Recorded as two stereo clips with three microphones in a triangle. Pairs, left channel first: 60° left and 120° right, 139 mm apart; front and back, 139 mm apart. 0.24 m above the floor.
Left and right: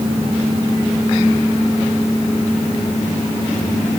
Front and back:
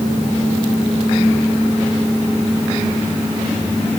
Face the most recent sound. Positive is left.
No sound to turn to.